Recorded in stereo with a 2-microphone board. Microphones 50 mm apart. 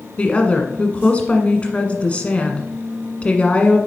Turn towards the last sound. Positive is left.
turn(degrees=25)  # may be behind; listen again after turning